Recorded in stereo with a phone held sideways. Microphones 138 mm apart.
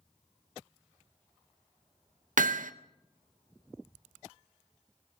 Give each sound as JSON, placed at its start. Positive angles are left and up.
{"t": 2.4, "sound": "hammering", "side_deg": -75, "distance_m": 0.6}